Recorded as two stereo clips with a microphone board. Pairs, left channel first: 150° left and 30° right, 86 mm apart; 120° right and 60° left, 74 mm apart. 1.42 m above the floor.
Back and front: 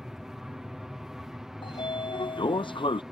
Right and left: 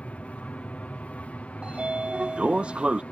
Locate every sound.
0.0 s an aircraft: 105° right
1.6 s a sliding door: 135° left